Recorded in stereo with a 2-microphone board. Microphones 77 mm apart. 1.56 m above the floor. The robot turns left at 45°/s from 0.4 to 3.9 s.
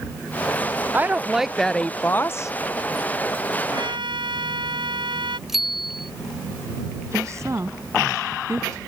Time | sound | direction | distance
0.9 | a woman speaking | 155° right | ?
3.7 | a trumpet | 80° right | ?
5.5 | a bicycle bell | 5° right (ahead or behind) | ?
7.1 | a woman speaking | 40° right (ahead or behind) | ?